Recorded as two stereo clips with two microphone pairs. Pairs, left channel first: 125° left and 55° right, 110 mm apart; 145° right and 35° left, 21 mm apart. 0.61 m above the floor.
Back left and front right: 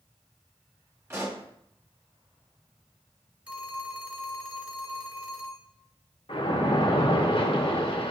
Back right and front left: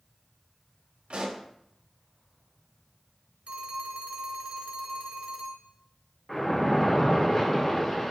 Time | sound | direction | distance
1.1 | a pop | 5° left | 2.5 m
3.5 | a phone ringing | 20° left | 1.7 m
6.3 | a splash | 150° left | 1.6 m